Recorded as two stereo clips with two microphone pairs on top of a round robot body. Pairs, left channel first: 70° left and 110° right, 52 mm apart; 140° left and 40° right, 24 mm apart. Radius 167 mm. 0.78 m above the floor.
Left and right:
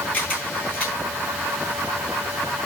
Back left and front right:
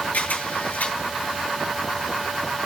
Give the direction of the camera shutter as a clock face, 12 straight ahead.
8 o'clock.